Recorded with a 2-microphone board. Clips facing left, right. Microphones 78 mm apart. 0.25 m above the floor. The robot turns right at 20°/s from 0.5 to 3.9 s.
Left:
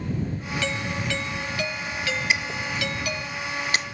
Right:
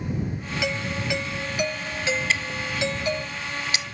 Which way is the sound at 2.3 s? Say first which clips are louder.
Left 1 dB; 15° left (ahead or behind).